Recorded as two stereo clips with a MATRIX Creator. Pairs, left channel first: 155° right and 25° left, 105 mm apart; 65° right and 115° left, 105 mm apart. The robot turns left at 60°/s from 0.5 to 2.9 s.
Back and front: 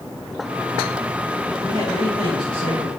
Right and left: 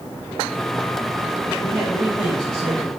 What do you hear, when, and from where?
1.6 s a man speaking: 90° right, 5.5 m; by 2.9 s 170° right, 5.5 m